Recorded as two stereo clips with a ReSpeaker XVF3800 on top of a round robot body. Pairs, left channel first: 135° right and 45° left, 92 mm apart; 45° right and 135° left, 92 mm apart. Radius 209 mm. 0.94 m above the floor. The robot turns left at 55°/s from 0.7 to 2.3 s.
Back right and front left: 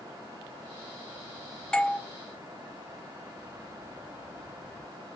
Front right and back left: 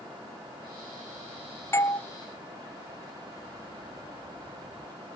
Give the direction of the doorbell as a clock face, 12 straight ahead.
2 o'clock.